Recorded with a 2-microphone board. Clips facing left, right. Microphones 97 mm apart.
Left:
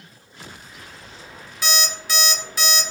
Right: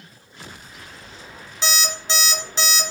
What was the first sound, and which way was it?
An alarm clock, 25° right (ahead or behind).